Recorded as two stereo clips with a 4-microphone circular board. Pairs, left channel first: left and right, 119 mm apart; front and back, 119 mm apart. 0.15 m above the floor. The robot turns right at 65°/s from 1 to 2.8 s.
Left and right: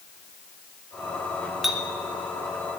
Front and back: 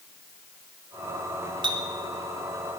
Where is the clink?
Straight behind, 1.2 m; by 1.8 s 165° right, 1.2 m.